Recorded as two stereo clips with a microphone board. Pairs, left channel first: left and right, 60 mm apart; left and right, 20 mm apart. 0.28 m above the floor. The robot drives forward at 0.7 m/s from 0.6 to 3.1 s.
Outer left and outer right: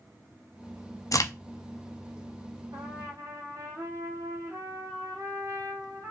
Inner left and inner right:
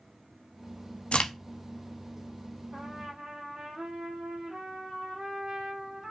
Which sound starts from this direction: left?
A crack, at 1.1 s.